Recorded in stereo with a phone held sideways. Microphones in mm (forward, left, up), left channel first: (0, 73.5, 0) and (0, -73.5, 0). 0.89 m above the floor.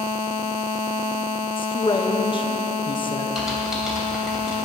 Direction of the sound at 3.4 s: Centre (ahead or behind).